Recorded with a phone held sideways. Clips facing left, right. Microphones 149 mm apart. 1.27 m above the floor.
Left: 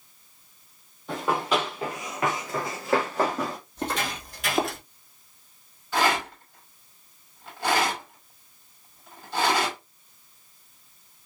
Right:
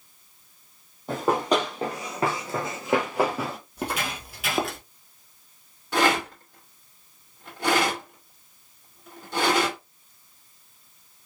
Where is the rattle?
80° right, 2.5 m.